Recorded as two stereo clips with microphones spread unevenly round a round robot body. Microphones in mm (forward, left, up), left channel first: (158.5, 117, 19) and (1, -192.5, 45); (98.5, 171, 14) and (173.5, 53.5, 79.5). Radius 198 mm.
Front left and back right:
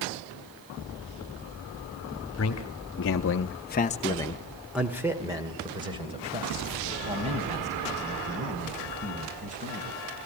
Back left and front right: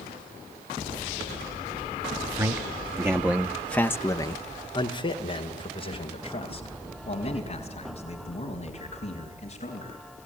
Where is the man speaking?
15° left, 1.6 m; by 10.0 s 170° left, 6.5 m.